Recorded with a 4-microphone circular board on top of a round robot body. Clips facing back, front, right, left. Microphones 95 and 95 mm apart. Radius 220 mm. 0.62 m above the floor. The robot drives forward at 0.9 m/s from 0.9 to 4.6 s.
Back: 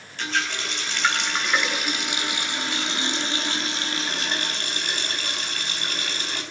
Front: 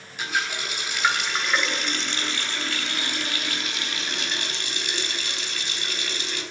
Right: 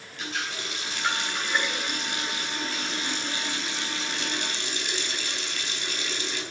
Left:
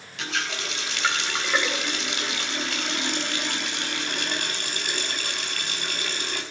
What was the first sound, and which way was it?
A running tap, 80° left.